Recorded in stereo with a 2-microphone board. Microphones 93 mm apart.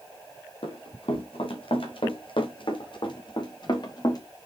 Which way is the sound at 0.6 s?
80° left.